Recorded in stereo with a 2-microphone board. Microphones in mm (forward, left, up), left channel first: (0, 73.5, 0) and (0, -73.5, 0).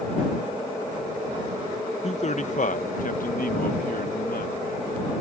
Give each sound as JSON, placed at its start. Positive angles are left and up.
{"t": 2.0, "sound": "a man speaking", "side_deg": 45}